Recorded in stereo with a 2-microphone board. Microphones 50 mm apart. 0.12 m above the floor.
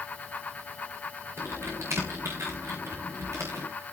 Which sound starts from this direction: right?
Typing on a keyboard, at 1.4 s.